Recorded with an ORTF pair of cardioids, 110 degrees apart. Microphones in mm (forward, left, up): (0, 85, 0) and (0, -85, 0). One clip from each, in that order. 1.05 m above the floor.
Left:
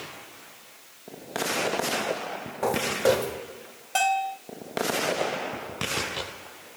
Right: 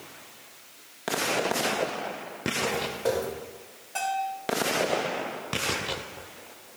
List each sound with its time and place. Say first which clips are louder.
2.6 s footsteps: left 7 dB; 55° left, 6 m
4.0 s a bell: left 5 dB; 60° left, 4 m